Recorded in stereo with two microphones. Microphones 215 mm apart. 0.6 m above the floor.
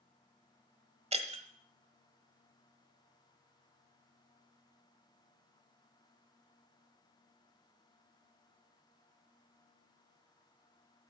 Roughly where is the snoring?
No snoring in this recording.